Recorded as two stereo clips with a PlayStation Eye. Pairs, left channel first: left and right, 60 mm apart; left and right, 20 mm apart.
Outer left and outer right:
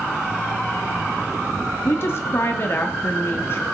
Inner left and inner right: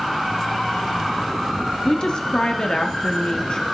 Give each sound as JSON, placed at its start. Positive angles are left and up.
{"t": 1.9, "sound": "a woman speaking", "side_deg": 40, "distance_m": 1.2}